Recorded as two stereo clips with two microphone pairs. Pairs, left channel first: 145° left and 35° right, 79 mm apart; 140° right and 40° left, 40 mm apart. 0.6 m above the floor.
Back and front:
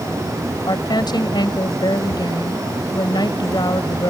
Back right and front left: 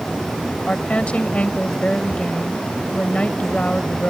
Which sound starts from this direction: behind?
A woman speaking, at 0.7 s.